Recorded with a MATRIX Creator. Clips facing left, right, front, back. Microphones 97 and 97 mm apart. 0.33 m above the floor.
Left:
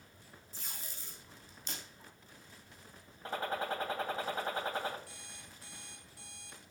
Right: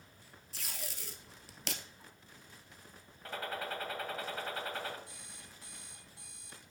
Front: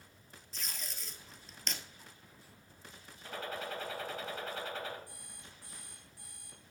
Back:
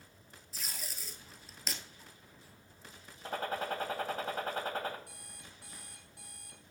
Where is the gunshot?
150° left, 2.5 m.